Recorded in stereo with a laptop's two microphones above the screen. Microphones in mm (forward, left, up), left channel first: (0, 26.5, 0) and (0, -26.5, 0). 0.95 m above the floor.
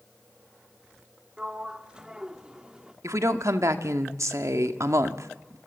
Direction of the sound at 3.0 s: 75° right (ahead or behind).